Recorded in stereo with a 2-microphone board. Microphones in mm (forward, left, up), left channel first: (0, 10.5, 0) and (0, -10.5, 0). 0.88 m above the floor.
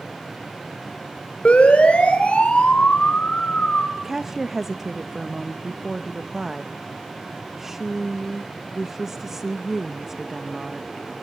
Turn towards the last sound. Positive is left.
turn(degrees=-15)  # may be behind; listen again after turning